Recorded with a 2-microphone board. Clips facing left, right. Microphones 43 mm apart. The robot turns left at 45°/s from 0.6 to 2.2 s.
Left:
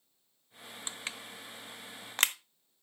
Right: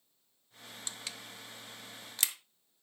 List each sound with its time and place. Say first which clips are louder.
0.9 s crushing: left 4 dB; 30° left (ahead or behind), 0.8 m; by 2.4 s 55° left (ahead or behind), 0.8 m